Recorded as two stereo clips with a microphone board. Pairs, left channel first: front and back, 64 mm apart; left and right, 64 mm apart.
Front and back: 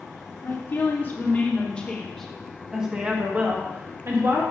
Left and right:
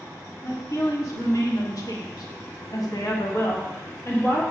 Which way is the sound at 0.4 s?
50° left.